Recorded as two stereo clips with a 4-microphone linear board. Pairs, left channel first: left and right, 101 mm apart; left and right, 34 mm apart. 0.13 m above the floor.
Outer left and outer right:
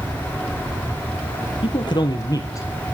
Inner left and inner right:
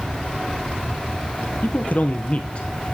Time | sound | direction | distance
1.6 | a man speaking | 50° left (ahead or behind) | 2.5 m